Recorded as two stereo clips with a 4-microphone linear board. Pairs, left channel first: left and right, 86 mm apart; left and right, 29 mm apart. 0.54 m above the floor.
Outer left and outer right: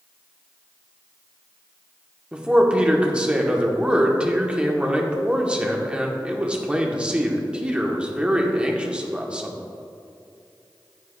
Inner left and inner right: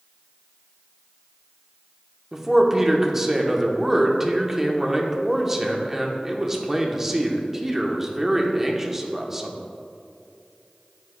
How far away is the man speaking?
About 0.9 m.